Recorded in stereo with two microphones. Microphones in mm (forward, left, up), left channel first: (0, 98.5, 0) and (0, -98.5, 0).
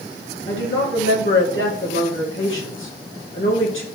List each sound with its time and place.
0.5 s a woman speaking: 90° left, 2 m